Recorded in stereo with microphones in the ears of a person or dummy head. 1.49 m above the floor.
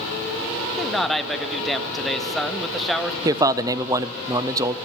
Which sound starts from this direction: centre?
A man speaking, at 0.8 s.